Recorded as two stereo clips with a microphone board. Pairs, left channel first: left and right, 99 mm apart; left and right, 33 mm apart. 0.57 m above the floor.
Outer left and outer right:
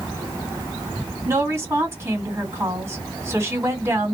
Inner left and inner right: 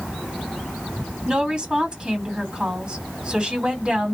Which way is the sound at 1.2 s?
30° right (ahead or behind).